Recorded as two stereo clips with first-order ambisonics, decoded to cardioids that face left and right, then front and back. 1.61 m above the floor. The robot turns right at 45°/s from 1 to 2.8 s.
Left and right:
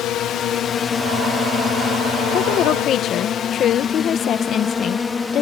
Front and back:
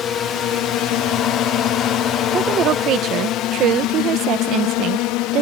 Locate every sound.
0.0 s a drone: 55° left; by 5.4 s 20° left
2.3 s a woman speaking: 115° left; by 5.4 s 140° left